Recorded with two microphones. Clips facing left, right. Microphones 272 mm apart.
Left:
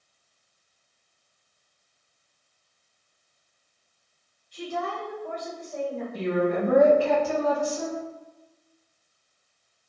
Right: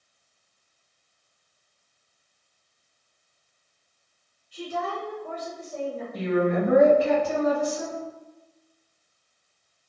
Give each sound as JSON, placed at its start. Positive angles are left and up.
{"t": 4.5, "sound": "a woman speaking", "side_deg": -10, "distance_m": 1.3}
{"t": 6.1, "sound": "a woman speaking", "side_deg": -20, "distance_m": 1.9}